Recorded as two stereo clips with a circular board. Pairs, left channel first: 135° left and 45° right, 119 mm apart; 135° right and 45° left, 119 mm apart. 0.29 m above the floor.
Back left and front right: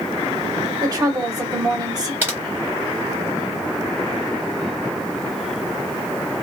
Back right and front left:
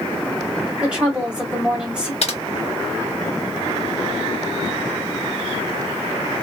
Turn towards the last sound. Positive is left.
turn(degrees=-115)